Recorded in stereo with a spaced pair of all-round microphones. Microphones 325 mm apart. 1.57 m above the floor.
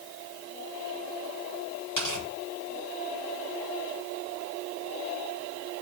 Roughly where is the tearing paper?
Left.